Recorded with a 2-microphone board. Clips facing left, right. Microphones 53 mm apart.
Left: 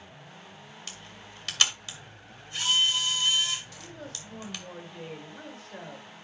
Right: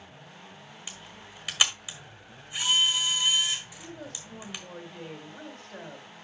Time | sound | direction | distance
0.9 | a camera shutter | 10° right (ahead or behind) | 1.9 m
3.8 | a woman speaking | centre (ahead or behind) | 1.6 m